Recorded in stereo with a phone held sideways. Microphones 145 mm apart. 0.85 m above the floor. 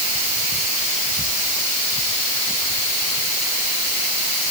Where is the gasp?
No gasp in this recording.